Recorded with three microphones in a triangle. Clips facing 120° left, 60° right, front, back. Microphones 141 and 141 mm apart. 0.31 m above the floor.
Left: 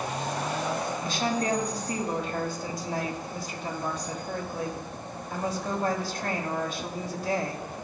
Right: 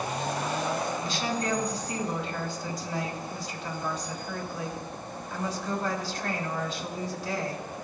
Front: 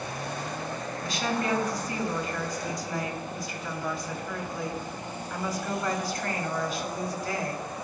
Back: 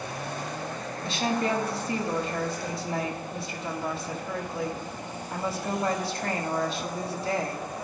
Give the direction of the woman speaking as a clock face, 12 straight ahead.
8 o'clock.